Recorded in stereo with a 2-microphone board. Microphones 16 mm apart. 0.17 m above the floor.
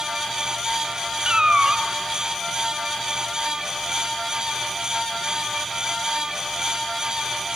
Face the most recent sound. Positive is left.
turn(degrees=-55)  # may be behind; listen again after turning